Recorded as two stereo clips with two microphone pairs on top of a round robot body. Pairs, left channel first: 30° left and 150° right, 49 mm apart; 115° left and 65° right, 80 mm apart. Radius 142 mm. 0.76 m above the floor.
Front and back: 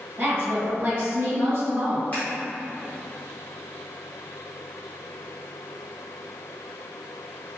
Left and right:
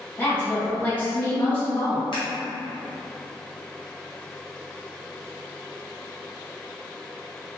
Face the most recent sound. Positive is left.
turn(degrees=90)